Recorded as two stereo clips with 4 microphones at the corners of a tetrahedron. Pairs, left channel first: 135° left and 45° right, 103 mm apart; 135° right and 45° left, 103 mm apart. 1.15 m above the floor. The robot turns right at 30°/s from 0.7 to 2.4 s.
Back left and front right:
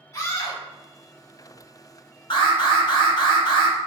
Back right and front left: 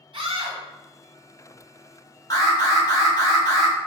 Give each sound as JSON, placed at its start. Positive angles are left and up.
{"t": 0.1, "sound": "a scream", "azimuth_deg": 75, "distance_m": 1.8}
{"t": 2.3, "sound": "an alarm", "azimuth_deg": 175, "distance_m": 1.4}